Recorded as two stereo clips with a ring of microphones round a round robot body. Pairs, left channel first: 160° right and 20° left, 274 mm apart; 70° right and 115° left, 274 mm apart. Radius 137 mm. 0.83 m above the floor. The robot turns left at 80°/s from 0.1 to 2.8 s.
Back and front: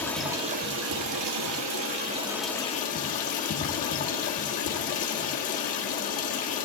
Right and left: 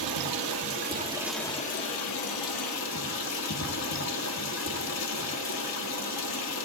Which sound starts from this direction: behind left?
Running water, at 0.0 s.